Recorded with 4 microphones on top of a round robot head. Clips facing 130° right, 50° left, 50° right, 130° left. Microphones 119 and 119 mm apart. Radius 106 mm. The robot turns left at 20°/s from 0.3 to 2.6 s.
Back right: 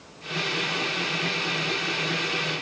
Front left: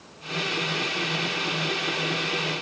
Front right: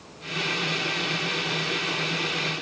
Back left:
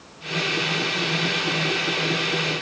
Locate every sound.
Only background noise.